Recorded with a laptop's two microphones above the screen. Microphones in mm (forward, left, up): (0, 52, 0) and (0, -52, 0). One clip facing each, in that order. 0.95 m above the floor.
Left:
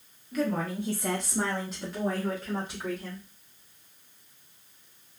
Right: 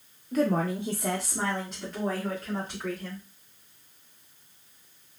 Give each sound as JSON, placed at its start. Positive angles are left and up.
{"t": 0.3, "sound": "a woman speaking", "side_deg": -40, "distance_m": 0.6}